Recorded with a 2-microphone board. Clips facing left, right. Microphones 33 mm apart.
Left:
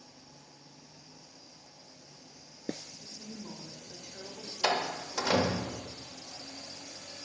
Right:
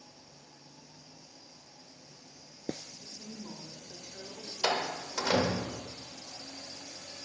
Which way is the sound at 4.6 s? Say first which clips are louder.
Left 1 dB; centre (ahead or behind).